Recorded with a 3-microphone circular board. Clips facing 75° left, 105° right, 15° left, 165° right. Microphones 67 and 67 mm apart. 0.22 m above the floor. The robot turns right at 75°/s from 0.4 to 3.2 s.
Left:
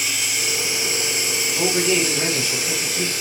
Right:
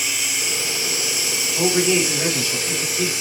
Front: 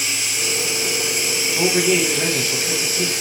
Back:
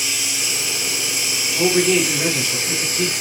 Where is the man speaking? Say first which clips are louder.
Right 2 dB, back 2 dB; 60° right, 1.2 m; by 3.1 s 60° left, 1.2 m.